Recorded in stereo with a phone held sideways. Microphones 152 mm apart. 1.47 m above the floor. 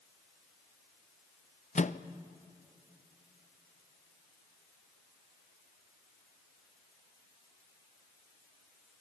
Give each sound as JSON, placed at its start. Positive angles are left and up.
{"t": 1.8, "sound": "a microwave", "side_deg": 50, "distance_m": 0.6}